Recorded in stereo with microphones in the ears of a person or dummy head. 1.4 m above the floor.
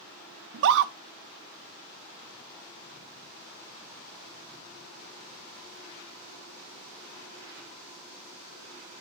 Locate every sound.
0.5 s a scream: 70° right (ahead or behind), 0.7 m